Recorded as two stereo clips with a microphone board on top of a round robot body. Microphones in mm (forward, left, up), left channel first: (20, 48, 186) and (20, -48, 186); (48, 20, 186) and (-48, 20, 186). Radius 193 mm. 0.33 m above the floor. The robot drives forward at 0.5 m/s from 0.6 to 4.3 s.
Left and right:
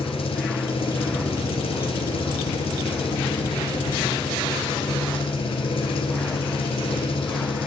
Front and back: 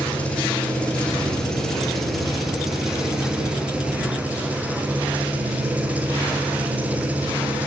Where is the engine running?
75° left, 3.5 m; by 7.7 s 105° left, 3.5 m.